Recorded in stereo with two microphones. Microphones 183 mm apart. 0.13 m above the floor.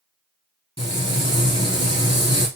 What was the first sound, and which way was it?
Frying, 30° left (ahead or behind).